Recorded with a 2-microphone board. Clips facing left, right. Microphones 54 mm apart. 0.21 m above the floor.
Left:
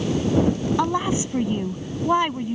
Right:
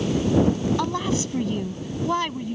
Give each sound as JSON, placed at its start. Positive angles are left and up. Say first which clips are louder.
{"t": 0.8, "sound": "a woman speaking", "louder": "left 3 dB", "side_deg": 20}